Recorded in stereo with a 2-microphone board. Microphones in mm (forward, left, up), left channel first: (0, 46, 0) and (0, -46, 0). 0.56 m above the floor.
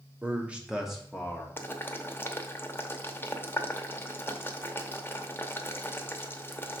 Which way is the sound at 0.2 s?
20° right (ahead or behind).